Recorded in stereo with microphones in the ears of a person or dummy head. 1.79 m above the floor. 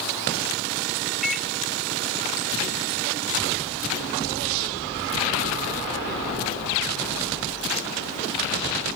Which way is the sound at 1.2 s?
Centre (ahead or behind).